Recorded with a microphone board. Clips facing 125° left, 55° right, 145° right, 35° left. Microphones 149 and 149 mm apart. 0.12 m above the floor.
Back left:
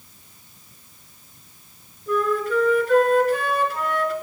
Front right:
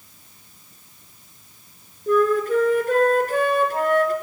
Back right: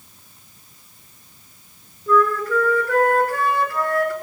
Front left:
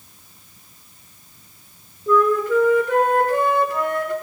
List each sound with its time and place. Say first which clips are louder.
2.1 s a flute: front right 4 dB, front left 2 dB; 30° right, 2.0 m